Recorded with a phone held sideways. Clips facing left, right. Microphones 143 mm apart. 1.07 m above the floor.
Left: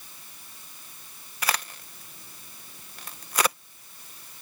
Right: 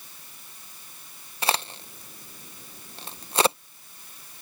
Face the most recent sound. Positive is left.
turn(degrees=-30)  # may be behind; listen again after turning